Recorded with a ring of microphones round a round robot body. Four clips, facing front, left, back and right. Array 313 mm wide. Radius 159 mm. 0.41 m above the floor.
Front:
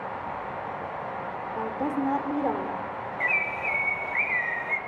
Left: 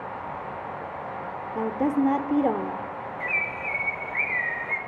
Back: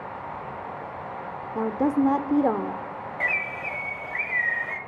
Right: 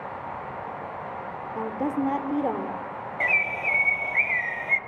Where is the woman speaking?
150° left, 1.5 m.